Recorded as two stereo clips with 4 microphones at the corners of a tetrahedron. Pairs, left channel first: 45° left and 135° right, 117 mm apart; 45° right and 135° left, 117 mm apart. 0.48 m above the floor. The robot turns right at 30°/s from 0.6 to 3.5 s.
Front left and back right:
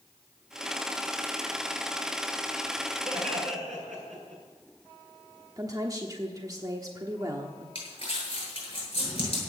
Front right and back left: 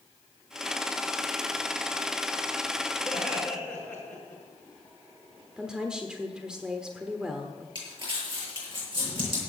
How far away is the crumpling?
About 8 m.